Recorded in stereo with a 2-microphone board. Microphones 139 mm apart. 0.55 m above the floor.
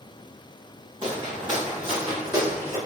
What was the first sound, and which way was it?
Footsteps, 40° right (ahead or behind).